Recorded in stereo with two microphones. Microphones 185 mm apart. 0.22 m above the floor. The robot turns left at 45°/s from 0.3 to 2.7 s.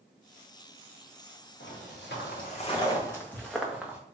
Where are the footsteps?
75° left (ahead or behind), 1.5 m; by 4.0 s 10° right (ahead or behind), 1.1 m.